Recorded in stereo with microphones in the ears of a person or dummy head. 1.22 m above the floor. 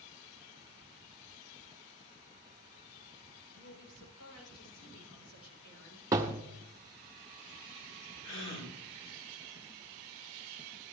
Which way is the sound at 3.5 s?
80° left.